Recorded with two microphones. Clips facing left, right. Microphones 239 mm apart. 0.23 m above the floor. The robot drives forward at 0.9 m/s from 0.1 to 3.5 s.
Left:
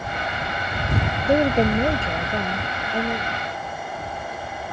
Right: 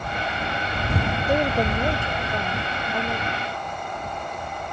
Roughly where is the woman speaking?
Left.